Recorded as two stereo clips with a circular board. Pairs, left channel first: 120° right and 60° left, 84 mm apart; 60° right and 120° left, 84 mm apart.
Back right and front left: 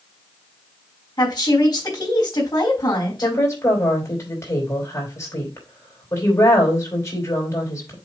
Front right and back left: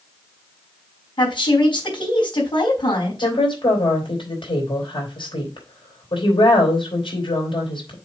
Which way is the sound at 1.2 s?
85° right.